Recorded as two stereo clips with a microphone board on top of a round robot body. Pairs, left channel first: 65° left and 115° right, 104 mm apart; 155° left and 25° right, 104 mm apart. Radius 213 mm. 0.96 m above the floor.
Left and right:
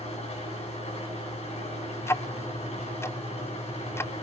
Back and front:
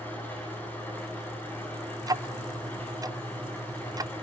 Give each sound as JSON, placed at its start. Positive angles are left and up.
{"t": 0.0, "sound": "an engine running", "azimuth_deg": 85, "distance_m": 9.0}
{"t": 2.0, "sound": "ticking", "azimuth_deg": 15, "distance_m": 0.7}